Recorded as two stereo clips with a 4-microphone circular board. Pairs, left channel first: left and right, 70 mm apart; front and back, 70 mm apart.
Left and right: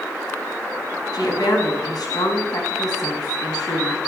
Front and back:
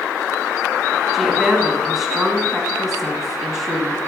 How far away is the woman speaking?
About 4.5 m.